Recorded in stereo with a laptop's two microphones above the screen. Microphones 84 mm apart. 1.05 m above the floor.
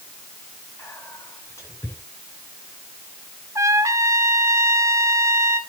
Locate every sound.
0.8 s whispering: 35° left (ahead or behind), 8.5 m
3.5 s a trumpet: 40° right (ahead or behind), 2 m